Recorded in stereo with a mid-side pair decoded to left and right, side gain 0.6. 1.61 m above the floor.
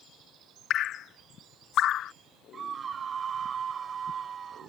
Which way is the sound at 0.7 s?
55° left.